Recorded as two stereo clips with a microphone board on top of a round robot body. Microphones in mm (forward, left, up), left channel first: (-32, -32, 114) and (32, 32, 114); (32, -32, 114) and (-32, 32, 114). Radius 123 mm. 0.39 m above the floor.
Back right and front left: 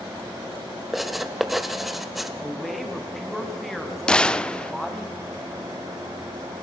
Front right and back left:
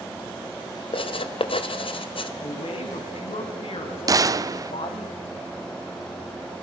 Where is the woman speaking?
45° right, 3 m.